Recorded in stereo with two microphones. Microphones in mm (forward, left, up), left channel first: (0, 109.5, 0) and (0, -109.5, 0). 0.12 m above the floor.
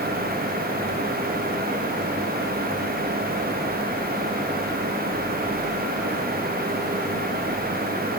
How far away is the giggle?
No giggle in this recording.